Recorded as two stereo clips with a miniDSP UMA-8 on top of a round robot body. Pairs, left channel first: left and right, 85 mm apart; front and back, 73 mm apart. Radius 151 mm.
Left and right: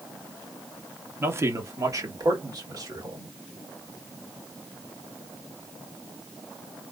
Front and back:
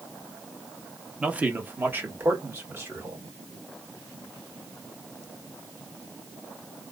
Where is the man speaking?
120° right, 0.9 m; by 3.3 s 125° right, 2.5 m.